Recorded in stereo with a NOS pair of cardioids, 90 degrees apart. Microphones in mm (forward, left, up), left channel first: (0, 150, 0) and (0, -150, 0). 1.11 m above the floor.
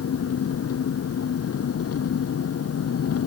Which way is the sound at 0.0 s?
50° left.